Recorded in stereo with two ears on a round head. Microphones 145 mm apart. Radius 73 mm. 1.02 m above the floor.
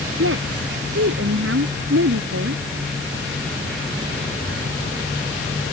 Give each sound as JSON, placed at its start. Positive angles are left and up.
{"t": 0.2, "sound": "a woman speaking", "side_deg": -85}